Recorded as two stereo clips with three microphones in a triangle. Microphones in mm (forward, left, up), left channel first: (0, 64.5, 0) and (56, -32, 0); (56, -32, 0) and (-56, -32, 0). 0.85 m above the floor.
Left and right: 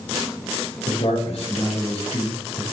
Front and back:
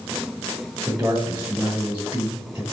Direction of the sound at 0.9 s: 100° left.